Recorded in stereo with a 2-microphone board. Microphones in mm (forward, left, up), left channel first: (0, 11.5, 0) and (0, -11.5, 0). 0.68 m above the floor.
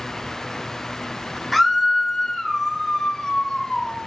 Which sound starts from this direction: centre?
A scream, at 1.5 s.